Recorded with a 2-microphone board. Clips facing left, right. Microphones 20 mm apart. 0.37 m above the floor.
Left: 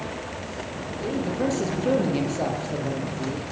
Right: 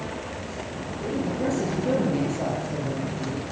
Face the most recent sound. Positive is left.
turn(degrees=35)  # may be behind; listen again after turning